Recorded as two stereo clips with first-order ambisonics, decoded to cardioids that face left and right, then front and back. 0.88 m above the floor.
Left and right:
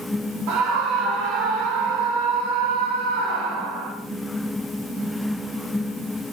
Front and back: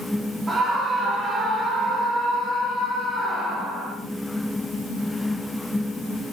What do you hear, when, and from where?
0.5 s a scream: 100° right, 2.5 m; by 3.9 s 90° right, 4.5 m